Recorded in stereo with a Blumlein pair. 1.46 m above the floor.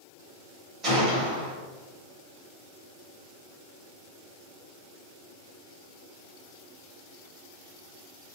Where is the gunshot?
25° right, 1.6 m.